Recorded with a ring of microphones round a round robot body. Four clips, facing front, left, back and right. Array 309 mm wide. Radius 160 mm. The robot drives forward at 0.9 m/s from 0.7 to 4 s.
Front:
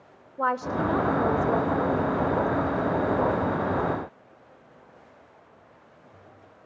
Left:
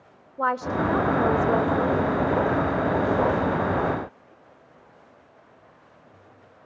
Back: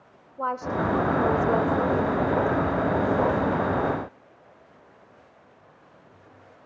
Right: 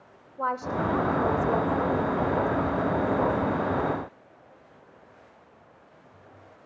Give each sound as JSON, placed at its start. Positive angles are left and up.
{"t": 0.4, "sound": "a woman speaking", "azimuth_deg": 60, "distance_m": 1.5}